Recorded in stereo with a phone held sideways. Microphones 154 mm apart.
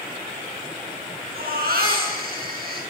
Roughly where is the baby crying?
Right.